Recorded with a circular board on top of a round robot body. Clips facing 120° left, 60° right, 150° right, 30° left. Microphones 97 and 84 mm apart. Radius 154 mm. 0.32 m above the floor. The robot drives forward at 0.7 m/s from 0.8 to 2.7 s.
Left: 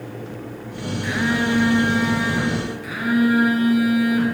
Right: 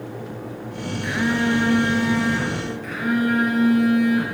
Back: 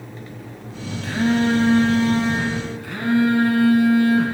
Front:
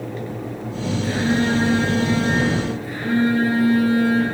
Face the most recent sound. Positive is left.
turn(degrees=-155)